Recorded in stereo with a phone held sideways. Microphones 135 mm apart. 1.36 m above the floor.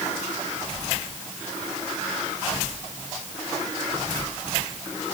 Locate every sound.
Only background noise.